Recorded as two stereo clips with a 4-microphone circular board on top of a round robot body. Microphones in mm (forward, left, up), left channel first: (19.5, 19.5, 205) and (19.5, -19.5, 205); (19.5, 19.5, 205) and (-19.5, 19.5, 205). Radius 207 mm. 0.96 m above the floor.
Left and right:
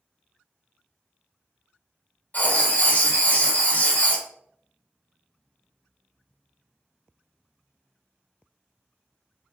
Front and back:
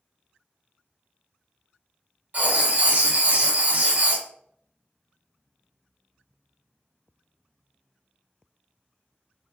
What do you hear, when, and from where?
2.3 s writing: 140° left, 1.7 m